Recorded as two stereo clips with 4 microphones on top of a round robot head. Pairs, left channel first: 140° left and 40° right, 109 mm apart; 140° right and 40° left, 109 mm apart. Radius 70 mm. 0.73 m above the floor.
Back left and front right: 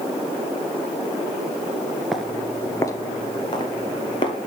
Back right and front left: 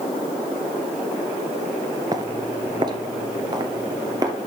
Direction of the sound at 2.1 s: 45° left.